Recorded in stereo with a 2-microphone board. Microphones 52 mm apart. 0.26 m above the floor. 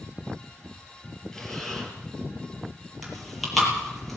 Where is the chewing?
5° left (ahead or behind), 7 m.